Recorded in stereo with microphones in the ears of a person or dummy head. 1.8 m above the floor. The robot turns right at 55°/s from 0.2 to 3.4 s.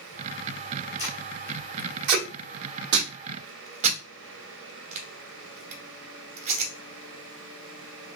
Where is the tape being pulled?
10° right (ahead or behind), 1.1 m; by 6.7 s 35° right (ahead or behind), 1.1 m.